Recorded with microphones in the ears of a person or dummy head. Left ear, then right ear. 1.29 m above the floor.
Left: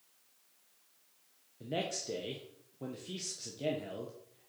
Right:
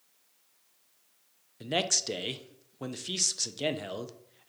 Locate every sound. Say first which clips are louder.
1.6 s a man speaking: right 8 dB; 50° right (ahead or behind), 0.6 m